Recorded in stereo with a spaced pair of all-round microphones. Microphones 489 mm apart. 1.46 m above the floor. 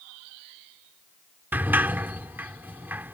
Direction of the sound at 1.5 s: 5° right (ahead or behind).